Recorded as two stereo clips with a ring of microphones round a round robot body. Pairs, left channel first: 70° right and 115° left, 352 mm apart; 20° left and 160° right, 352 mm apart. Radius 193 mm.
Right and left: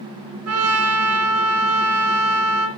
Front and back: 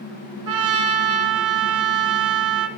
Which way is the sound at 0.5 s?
165° left.